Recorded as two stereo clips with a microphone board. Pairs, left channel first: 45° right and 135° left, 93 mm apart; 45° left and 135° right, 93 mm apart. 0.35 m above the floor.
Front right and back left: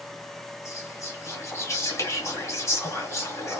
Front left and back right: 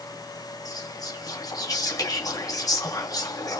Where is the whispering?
5° left, 1.9 m.